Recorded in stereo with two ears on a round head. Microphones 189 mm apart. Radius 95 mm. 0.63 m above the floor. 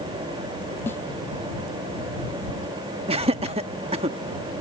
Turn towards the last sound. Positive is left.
turn(degrees=-30)  # may be behind; listen again after turning